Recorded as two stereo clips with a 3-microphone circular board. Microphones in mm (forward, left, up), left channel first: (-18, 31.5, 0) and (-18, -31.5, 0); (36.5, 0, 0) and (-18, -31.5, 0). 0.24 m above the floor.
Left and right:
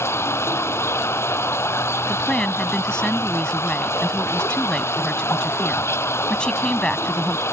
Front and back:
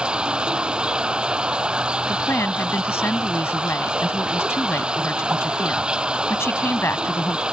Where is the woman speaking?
20° left.